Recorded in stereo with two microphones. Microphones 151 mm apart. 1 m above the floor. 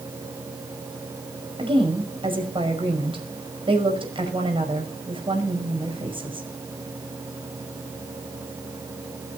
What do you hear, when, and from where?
1.6 s a woman speaking: 35° right (ahead or behind), 5.5 m